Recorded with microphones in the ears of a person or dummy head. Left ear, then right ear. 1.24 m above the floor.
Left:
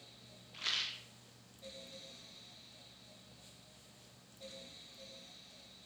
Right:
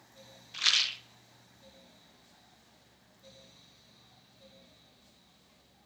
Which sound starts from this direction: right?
A rattle, at 0.5 s.